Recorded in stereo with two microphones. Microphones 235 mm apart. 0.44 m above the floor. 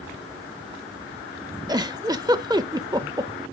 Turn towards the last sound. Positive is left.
turn(degrees=-15)  # may be behind; listen again after turning